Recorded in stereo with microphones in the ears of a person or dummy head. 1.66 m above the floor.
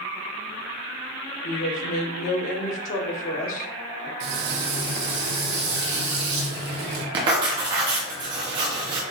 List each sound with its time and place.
1.4 s a woman speaking: 50° left (ahead or behind), 0.7 m
4.2 s frying: 65° right (ahead or behind), 1.4 m
7.1 s writing: 25° right (ahead or behind), 0.8 m